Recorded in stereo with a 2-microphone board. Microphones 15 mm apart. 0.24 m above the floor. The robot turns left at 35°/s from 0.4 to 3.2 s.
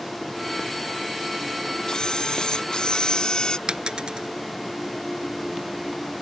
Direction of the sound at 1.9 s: 115° left.